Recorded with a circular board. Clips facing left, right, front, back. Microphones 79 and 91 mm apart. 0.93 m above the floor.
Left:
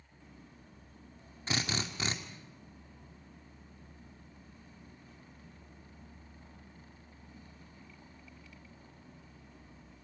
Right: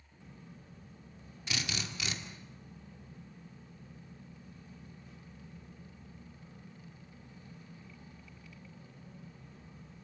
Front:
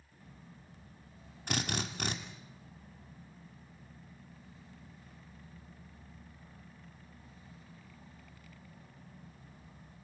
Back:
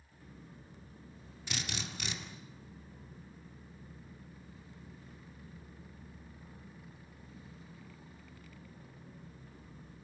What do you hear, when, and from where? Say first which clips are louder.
1.5 s a drill: left 4 dB, front 6 dB; 40° left, 2.5 m